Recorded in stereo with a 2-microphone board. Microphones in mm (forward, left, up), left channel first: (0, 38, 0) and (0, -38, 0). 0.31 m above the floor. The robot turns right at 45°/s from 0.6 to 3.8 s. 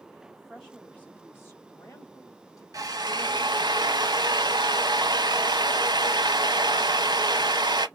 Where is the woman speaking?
10° left, 2 m; by 2.6 s 100° left, 2 m.